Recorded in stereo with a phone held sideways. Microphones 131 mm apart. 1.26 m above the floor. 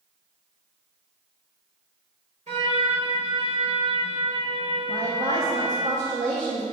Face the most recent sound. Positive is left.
turn(degrees=-75)  # may be behind; listen again after turning